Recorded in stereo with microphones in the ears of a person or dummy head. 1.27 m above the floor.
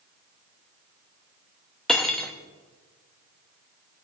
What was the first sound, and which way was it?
Cutlery clinking, 5° left (ahead or behind).